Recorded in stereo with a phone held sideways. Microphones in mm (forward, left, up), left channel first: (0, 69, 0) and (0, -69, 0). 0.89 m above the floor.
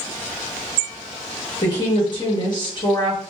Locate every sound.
1.6 s a woman speaking: 35° left (ahead or behind), 1.1 m